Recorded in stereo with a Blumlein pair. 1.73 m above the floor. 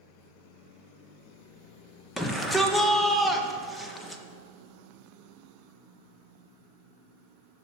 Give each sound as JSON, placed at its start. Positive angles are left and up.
{"t": 2.2, "sound": "a shout", "azimuth_deg": 10, "distance_m": 1.2}